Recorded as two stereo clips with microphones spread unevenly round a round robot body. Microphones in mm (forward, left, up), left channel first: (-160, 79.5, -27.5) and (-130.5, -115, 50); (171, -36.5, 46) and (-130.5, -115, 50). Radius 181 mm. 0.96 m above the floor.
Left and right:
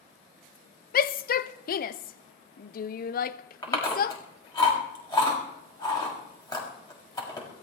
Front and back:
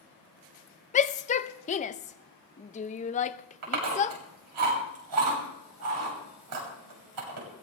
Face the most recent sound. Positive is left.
turn(degrees=165)